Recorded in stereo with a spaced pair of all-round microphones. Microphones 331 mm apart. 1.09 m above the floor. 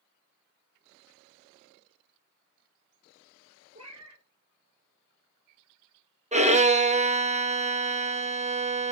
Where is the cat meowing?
50° right (ahead or behind), 2 m.